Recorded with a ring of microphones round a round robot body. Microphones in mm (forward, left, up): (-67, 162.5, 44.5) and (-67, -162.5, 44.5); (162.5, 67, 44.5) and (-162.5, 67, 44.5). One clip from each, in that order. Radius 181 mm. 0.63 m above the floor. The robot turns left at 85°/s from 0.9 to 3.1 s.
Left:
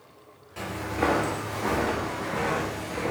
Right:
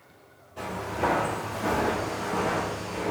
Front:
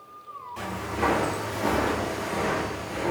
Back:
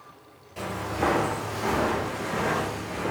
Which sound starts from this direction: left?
Footsteps, at 0.6 s.